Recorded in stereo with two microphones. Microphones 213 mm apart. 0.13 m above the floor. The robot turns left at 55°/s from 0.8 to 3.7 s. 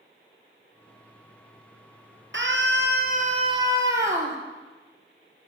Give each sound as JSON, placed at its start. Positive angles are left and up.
{"t": 2.3, "sound": "a scream", "azimuth_deg": -90, "distance_m": 2.5}